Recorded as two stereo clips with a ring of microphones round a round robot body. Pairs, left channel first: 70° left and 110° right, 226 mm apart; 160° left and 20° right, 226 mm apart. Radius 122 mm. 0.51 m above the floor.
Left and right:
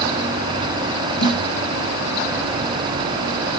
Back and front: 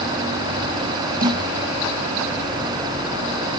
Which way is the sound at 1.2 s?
30° left.